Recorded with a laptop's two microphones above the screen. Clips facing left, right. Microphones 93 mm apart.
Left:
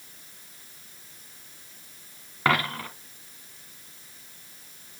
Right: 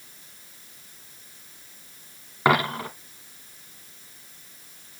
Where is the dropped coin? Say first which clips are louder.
Right 4 dB; 15° right (ahead or behind), 1.3 m.